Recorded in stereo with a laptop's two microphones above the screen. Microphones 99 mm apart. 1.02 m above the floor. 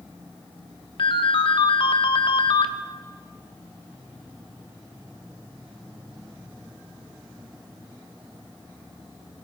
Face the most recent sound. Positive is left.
turn(degrees=60)  # may be behind; listen again after turning